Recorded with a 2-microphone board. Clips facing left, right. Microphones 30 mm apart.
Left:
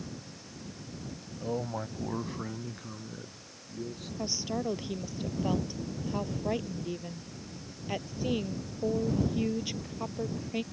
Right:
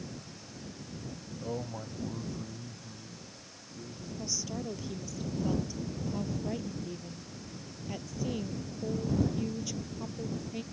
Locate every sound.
1.4 s a man speaking: 5° left (ahead or behind); by 4.1 s 70° left (ahead or behind)
4.2 s a woman speaking: 35° left (ahead or behind)